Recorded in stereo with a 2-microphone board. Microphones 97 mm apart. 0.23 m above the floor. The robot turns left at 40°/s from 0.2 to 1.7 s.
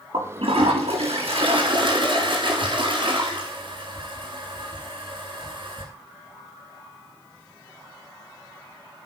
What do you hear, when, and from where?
0.1 s a toilet flushing: 65° right, 6.5 m; by 5.9 s 125° right, 6.5 m